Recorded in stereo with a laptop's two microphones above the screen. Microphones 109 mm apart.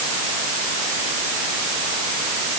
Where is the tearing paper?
I don't hear tearing paper.